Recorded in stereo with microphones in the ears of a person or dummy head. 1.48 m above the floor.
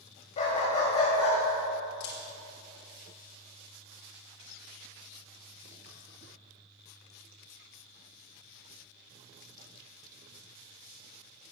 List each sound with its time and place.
0.4 s a dog barking: 40° left (ahead or behind), 3.5 m; by 1.4 s 30° left (ahead or behind), 3.5 m
2.0 s a camera shutter: 65° left (ahead or behind), 4 m